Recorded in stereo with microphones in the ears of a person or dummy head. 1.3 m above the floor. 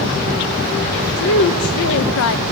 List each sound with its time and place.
1.2 s a woman speaking: 90° left, 1.1 m